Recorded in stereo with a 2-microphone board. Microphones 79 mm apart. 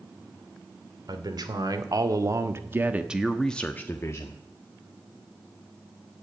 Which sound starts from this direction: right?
A man speaking, at 1.1 s.